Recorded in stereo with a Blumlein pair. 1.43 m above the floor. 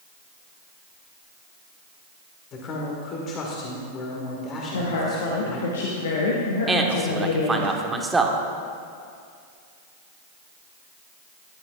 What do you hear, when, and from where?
2.5 s a man speaking: 30° left, 1.8 m
4.7 s a woman speaking: 60° left, 1.4 m
6.7 s a man speaking: 10° right, 1.3 m